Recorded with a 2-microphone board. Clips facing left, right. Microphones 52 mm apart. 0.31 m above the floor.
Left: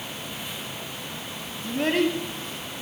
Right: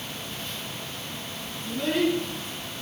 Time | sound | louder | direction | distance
1.6 | a child speaking | left 1 dB | 55° left (ahead or behind) | 1.5 m